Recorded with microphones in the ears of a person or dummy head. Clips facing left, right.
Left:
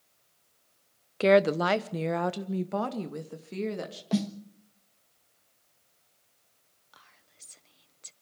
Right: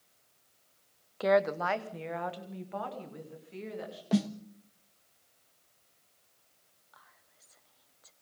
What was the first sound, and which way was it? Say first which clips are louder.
A woman speaking: left 5 dB; 30° left (ahead or behind).